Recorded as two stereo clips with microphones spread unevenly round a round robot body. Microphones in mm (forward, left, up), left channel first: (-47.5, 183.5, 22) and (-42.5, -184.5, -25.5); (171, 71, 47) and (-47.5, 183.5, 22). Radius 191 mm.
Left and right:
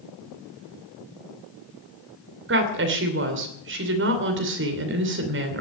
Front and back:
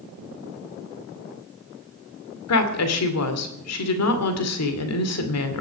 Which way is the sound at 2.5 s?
35° right.